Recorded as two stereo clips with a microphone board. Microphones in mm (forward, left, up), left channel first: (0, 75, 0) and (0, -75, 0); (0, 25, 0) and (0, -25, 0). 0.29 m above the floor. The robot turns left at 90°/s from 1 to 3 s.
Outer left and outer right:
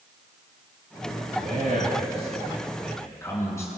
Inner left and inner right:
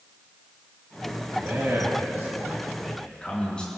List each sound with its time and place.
1.4 s a man speaking: 55° right, 4 m; by 3.7 s 160° left, 4 m